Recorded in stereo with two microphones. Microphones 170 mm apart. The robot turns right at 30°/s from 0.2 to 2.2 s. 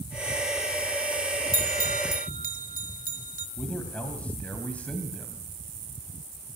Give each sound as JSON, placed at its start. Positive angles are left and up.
{"t": 1.5, "sound": "a bell", "side_deg": -50, "distance_m": 1.5}
{"t": 3.6, "sound": "a man speaking", "side_deg": 10, "distance_m": 2.5}